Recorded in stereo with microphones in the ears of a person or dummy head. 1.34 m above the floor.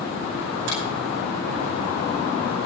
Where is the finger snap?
65° right (ahead or behind), 10 m.